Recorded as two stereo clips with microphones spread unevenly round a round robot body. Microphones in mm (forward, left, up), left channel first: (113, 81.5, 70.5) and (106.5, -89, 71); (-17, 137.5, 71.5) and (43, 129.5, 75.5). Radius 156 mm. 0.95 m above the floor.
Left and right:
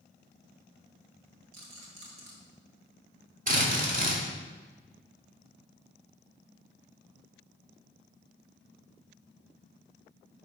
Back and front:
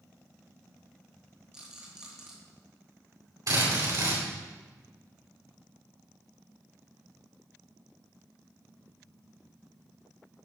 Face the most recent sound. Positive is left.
turn(degrees=-45)